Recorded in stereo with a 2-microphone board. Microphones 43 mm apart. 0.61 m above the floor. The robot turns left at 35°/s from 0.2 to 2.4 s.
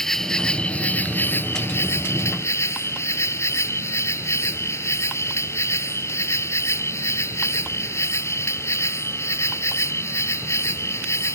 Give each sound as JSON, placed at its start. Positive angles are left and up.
{"t": 0.0, "sound": "an insect", "azimuth_deg": 170}